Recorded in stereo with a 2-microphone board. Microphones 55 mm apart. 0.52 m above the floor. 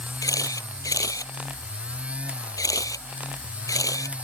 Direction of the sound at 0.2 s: 85° left.